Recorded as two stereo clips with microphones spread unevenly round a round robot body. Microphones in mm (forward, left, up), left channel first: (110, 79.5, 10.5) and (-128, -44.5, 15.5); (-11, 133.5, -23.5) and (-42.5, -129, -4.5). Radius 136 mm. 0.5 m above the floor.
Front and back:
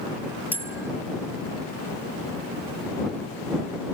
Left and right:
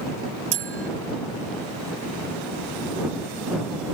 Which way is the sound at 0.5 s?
70° right.